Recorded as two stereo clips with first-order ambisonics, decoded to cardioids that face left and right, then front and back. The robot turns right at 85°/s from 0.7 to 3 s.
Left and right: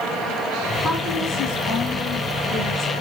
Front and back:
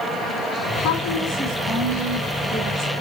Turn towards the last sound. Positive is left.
turn(degrees=180)